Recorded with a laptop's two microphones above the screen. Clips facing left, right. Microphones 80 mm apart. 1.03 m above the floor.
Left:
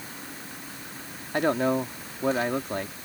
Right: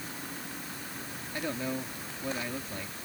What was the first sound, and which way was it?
A man speaking, 70° left (ahead or behind).